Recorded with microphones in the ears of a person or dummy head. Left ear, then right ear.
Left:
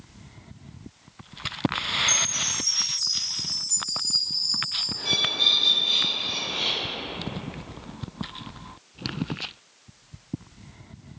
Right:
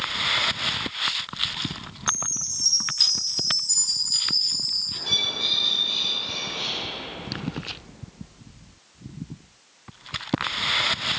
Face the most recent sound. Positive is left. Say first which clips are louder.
# left 3 dB
turn(degrees=55)  # may be behind; listen again after turning